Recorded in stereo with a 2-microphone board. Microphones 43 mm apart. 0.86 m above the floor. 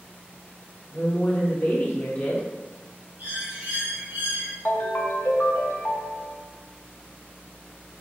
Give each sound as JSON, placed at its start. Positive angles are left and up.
{"t": 0.9, "sound": "a woman speaking", "side_deg": 45, "distance_m": 0.8}
{"t": 3.2, "sound": "a bird", "side_deg": -50, "distance_m": 1.7}
{"t": 4.7, "sound": "a ringtone", "side_deg": 55, "distance_m": 0.6}